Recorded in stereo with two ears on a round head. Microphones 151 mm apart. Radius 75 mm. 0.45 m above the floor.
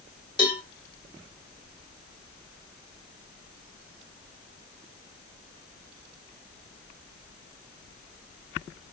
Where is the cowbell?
30° left (ahead or behind), 2.5 m.